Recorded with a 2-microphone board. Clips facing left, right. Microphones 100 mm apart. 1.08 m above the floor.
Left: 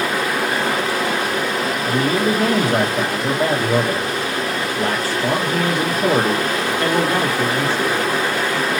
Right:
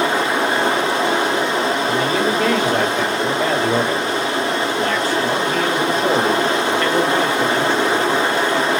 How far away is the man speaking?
About 1.1 m.